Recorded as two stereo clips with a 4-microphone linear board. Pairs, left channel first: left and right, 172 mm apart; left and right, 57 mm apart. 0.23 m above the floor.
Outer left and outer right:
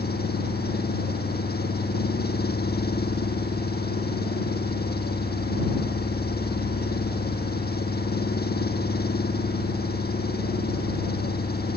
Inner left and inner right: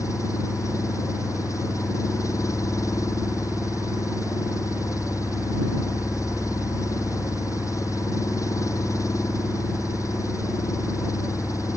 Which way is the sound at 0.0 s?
65° left (ahead or behind).